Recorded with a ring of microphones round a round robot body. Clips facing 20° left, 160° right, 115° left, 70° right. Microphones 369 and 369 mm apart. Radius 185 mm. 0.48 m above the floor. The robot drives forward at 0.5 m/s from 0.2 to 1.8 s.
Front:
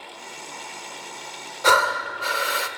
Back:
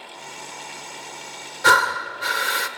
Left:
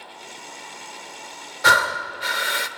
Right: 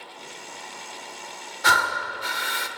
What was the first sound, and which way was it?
Breathing, 135° left.